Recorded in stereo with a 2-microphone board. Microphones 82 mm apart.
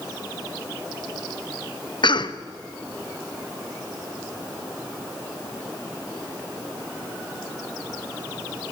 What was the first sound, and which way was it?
A cough, 65° left (ahead or behind).